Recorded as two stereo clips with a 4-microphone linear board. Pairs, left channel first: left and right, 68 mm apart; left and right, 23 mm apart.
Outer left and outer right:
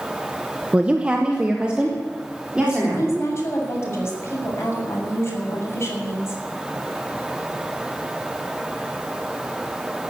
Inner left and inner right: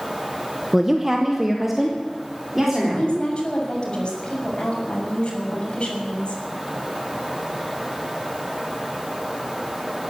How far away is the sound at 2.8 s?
About 6.5 m.